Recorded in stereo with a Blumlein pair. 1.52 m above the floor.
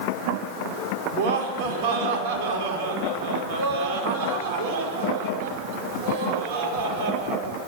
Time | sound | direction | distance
1.1 | laughter | 50° right | 5 m